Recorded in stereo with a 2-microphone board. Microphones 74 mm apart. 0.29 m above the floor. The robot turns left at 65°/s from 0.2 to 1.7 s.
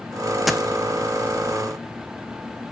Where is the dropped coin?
Centre (ahead or behind), 0.8 m; by 0.7 s 15° right (ahead or behind), 0.8 m.